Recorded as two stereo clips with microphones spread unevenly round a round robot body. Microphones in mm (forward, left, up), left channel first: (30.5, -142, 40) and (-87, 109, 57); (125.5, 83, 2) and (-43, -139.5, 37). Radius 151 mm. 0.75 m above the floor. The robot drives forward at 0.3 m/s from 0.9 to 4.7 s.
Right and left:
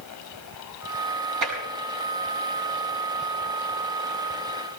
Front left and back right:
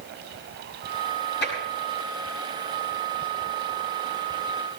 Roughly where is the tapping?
Left.